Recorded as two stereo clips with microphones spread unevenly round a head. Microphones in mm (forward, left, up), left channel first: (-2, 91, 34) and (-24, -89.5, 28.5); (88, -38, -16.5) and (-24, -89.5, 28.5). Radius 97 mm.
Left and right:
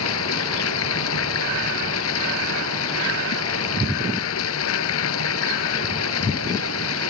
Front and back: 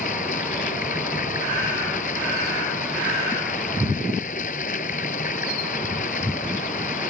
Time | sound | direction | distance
0.0 | running water | 75° left | ?